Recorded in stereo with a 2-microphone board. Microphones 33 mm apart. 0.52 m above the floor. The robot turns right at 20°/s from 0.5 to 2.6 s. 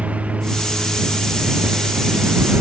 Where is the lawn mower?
135° right; by 2.6 s 95° right.